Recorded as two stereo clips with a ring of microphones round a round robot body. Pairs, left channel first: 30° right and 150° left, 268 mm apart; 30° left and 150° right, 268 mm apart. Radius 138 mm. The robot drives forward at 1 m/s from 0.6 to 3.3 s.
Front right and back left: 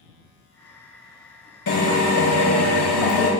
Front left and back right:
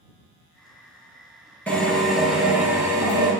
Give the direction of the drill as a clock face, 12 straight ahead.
2 o'clock.